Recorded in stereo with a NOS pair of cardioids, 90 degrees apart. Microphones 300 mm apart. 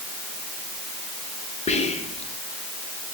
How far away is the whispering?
About 0.8 m.